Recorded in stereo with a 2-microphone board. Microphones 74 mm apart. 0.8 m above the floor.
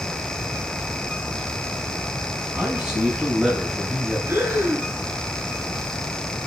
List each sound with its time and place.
2.5 s a man speaking: 15° right (ahead or behind), 6 m; by 4.2 s 5° right (ahead or behind), 6.5 m
4.3 s breathing: 35° right (ahead or behind), 6.5 m